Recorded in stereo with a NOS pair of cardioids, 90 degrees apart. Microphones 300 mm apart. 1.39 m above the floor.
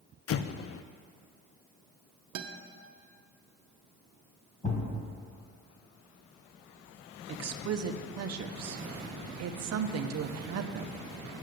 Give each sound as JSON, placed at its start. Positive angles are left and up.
{"t": 0.3, "sound": "an explosion", "azimuth_deg": 50, "distance_m": 0.5}
{"t": 2.4, "sound": "a guitar", "azimuth_deg": -70, "distance_m": 1.0}
{"t": 4.6, "sound": "a thud", "azimuth_deg": 25, "distance_m": 3.0}
{"t": 7.3, "sound": "a woman speaking", "azimuth_deg": -55, "distance_m": 0.9}